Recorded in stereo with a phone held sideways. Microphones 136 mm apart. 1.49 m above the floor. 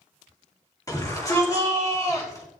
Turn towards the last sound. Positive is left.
turn(degrees=25)  # may be behind; listen again after turning